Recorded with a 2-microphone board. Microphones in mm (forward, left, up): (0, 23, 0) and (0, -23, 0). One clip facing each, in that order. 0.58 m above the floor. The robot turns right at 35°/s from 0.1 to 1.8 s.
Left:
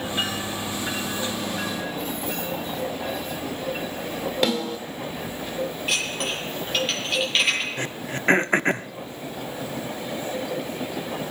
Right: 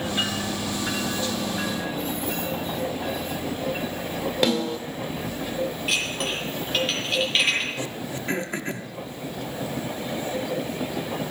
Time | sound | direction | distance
4.4 | a snare drum | 5° right (ahead or behind) | 2 m
5.9 | dishes clattering | centre (ahead or behind) | 8.5 m
7.8 | throat clearing | 50° left (ahead or behind) | 0.6 m